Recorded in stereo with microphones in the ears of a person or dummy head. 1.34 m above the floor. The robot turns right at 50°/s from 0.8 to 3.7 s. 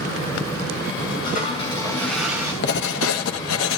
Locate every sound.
1.2 s a toilet flushing: 130° left, 6.5 m; by 2.5 s 165° right, 6.5 m
2.6 s writing: 55° left, 1.3 m; by 3.8 s 110° left, 1.3 m